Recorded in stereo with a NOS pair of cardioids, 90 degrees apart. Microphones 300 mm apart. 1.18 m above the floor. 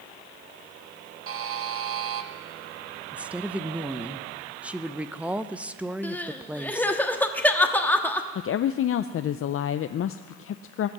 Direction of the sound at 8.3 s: 50° left.